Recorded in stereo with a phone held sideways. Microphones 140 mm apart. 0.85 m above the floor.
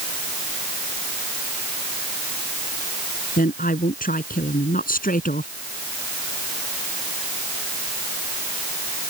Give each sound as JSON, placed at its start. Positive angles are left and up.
{"t": 3.4, "sound": "a woman speaking", "side_deg": 85}